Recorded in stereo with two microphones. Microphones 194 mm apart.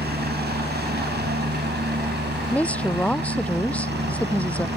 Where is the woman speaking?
5° left (ahead or behind).